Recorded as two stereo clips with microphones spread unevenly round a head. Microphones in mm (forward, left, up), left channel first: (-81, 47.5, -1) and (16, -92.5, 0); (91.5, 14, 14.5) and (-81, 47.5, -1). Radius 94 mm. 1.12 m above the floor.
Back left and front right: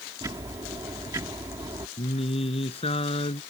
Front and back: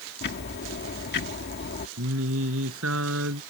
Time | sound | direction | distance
0.2 | ticking | 20° left | ?
2.0 | singing | straight behind | ?